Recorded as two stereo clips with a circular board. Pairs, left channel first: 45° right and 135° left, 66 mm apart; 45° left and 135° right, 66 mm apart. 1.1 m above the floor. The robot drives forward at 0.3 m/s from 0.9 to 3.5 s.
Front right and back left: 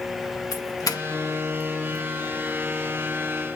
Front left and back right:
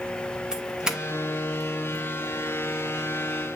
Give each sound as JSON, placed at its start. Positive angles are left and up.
{"t": 0.5, "sound": "a doorbell", "azimuth_deg": -55, "distance_m": 1.8}